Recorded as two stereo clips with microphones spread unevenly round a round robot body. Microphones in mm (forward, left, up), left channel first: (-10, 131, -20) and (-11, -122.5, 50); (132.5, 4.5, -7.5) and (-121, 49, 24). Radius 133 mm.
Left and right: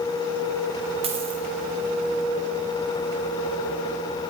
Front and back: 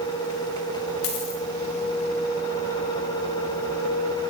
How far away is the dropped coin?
About 8.5 m.